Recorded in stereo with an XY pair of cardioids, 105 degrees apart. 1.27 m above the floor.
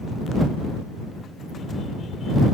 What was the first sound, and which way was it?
Only background noise.